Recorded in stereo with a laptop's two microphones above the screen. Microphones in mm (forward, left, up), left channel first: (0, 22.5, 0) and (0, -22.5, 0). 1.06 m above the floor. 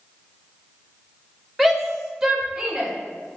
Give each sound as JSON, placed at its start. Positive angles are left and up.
{"t": 1.6, "sound": "a shout", "side_deg": 0, "distance_m": 1.1}